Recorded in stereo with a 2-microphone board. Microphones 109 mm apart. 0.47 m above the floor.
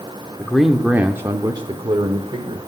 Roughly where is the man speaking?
Centre.